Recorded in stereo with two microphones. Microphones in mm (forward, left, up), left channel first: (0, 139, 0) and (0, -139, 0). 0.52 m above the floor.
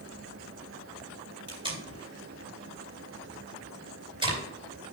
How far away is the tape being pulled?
About 3.5 m.